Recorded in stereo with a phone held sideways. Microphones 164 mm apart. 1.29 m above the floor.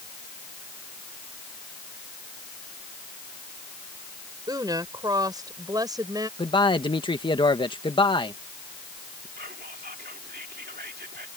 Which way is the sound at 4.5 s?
25° right (ahead or behind).